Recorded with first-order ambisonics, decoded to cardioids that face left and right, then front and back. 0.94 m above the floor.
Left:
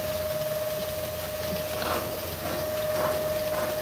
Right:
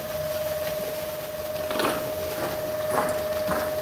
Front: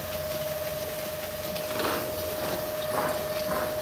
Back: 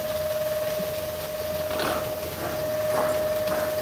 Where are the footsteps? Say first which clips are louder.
Right 6 dB, back 2 dB; 95° right, 6 m; by 3.7 s 80° right, 5 m.